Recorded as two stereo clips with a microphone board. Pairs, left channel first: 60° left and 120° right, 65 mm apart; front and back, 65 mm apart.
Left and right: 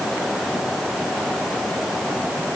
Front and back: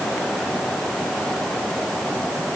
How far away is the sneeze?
No sneeze in this recording.